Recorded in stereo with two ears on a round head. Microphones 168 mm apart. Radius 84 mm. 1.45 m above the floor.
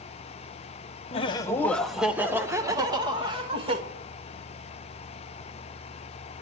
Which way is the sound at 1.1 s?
35° left (ahead or behind).